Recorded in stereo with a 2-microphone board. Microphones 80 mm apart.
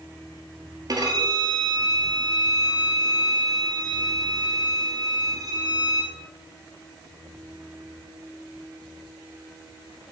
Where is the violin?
50° right (ahead or behind), 1.1 m.